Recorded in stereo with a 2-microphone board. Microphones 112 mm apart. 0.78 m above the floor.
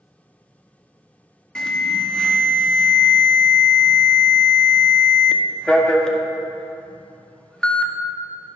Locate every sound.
1.6 s an alarm: 5° left (ahead or behind), 0.8 m